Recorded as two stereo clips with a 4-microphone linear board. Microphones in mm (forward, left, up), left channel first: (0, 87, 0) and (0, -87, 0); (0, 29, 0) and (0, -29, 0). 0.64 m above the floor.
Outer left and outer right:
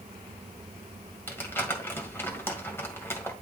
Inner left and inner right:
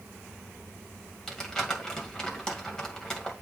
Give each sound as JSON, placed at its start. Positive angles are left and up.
{"t": 1.3, "sound": "crumpling", "side_deg": 15, "distance_m": 2.0}